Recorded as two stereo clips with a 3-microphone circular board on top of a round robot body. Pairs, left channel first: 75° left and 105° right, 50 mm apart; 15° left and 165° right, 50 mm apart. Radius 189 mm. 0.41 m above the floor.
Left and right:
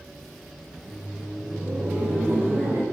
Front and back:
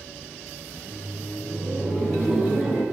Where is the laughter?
15° right, 1.7 m; by 2.8 s 90° right, 1.6 m.